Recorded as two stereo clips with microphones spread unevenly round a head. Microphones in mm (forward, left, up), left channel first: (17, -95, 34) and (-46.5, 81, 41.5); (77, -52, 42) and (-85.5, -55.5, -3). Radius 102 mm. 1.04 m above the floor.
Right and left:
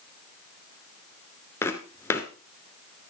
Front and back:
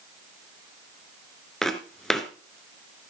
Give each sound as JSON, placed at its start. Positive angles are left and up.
{"t": 1.6, "sound": "footsteps", "azimuth_deg": -10, "distance_m": 1.0}